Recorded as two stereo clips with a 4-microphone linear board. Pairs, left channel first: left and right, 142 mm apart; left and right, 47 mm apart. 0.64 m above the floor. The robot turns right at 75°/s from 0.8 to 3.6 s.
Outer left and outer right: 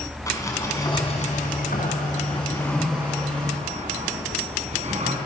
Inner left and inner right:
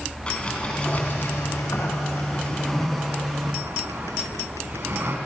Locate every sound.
0.3 s a sliding door: 25° left, 4.5 m; by 5.2 s 125° right, 4.5 m